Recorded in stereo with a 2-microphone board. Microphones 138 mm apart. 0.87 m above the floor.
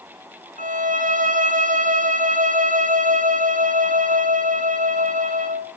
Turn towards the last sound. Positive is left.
turn(degrees=-70)  # may be behind; listen again after turning